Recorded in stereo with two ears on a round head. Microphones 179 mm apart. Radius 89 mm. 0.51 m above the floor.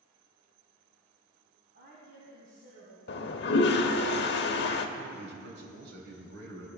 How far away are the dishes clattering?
No dishes clattering in this recording.